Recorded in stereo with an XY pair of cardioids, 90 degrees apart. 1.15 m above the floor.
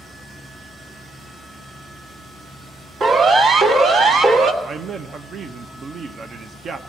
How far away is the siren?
About 2 m.